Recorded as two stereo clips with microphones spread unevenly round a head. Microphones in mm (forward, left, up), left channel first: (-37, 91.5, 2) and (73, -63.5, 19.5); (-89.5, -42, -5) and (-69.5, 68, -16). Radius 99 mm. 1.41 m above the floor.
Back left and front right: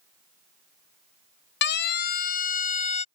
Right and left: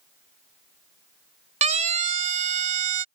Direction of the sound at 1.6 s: 95° left.